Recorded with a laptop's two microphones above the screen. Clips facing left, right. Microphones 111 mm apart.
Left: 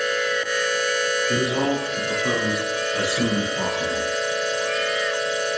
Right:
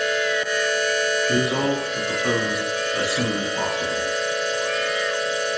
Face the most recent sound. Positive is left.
turn(degrees=-70)  # may be behind; listen again after turning